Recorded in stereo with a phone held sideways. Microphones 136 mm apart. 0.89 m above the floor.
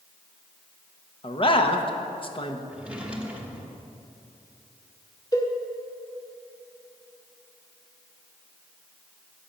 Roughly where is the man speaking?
Left.